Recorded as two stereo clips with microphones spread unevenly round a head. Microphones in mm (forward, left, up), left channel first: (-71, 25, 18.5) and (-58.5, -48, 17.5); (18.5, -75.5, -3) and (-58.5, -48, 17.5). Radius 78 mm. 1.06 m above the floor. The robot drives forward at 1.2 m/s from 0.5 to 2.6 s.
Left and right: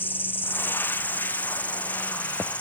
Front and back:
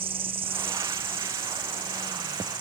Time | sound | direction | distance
0.0 | an insect | 160° left | ?